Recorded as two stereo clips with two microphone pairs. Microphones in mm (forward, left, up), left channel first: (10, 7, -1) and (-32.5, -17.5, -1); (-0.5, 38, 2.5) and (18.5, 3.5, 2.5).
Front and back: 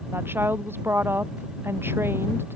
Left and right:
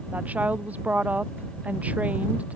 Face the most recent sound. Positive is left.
turn(degrees=-115)